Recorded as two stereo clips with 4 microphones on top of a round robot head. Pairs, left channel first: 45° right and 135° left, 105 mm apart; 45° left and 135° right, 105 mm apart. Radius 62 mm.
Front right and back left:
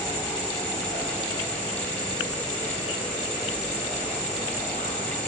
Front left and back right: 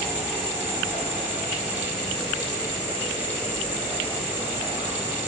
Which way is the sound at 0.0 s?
30° right.